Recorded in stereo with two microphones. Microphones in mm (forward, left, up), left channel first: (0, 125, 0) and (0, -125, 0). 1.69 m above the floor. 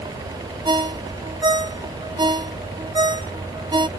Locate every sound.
0.7 s a ringtone: 20° right (ahead or behind)